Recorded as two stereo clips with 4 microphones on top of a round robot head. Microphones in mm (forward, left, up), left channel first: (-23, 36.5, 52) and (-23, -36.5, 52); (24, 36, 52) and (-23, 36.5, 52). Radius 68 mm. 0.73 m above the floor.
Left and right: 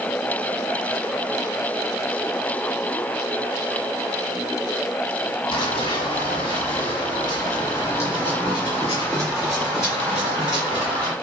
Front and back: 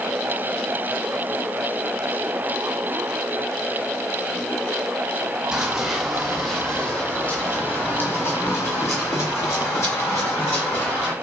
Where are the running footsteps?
100° left, 1.4 m; by 11.1 s 10° right, 2.5 m.